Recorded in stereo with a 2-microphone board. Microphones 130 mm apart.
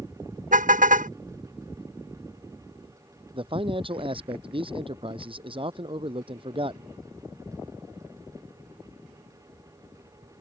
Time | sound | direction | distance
0.5 | a car horn | 70° right (ahead or behind) | ?
3.3 | a man speaking | 40° right (ahead or behind) | ?